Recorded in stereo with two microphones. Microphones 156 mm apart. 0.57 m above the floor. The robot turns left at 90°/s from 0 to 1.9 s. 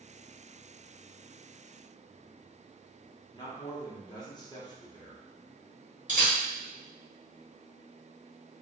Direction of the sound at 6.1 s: 60° right (ahead or behind).